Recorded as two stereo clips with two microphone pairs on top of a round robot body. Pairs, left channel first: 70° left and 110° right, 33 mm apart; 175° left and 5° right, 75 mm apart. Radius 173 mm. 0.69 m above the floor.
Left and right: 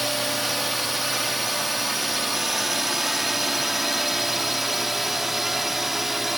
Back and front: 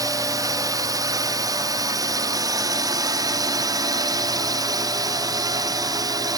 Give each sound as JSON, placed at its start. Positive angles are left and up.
{"t": 0.0, "sound": "a drone", "azimuth_deg": -25}